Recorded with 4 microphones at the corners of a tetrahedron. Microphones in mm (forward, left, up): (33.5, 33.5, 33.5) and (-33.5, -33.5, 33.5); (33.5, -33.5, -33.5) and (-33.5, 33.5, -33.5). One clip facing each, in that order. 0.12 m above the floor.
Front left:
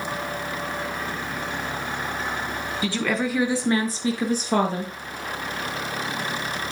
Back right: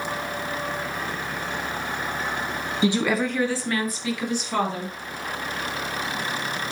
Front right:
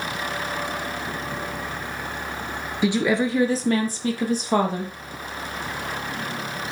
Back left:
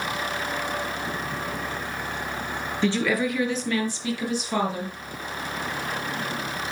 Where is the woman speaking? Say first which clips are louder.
Back right 3 dB, front right 3 dB; 110° right, 1.2 m; by 4.9 s straight ahead, 3 m.